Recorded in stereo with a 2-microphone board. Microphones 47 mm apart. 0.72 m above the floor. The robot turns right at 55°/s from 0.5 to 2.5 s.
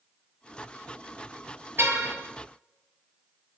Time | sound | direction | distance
1.8 | a car horn | 55° right (ahead or behind) | 6.5 m